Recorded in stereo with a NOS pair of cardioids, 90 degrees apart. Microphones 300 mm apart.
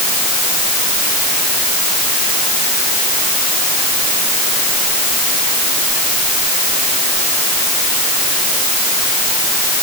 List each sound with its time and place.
Only background noise.